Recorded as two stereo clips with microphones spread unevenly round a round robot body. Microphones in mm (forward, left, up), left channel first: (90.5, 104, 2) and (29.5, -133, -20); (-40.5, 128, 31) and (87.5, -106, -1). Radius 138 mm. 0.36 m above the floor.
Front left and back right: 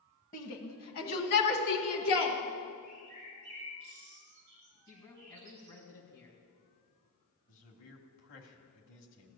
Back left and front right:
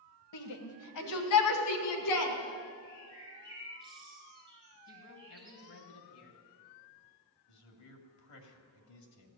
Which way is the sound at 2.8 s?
135° right.